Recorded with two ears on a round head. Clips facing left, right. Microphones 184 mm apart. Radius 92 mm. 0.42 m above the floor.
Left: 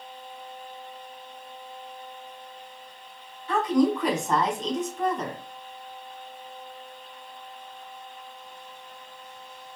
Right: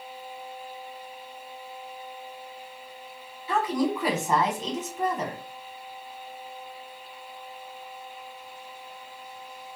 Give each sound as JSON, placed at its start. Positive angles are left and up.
{"t": 3.5, "sound": "a woman speaking", "side_deg": -5, "distance_m": 1.0}